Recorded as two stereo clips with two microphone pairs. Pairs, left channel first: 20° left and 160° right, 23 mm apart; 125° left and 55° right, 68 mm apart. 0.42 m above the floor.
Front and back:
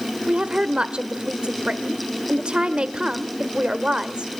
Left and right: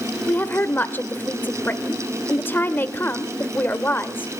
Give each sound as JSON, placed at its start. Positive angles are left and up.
{"t": 0.3, "sound": "a woman speaking", "azimuth_deg": 170, "distance_m": 1.4}